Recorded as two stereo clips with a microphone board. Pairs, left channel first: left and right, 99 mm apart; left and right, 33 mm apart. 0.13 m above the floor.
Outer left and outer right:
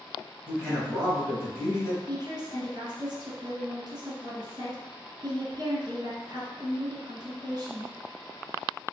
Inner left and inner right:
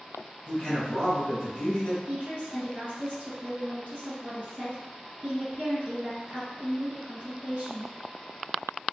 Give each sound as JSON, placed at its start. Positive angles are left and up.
{"t": 0.5, "sound": "a man speaking", "side_deg": 20, "distance_m": 1.4}
{"t": 2.1, "sound": "a woman speaking", "side_deg": -40, "distance_m": 2.0}